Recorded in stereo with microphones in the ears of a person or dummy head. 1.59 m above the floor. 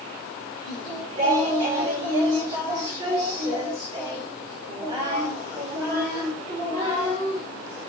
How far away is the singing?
About 4 m.